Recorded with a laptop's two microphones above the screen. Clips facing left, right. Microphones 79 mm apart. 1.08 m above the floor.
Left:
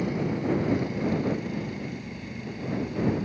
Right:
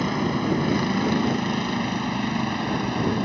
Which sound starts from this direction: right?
A vehicle, at 0.0 s.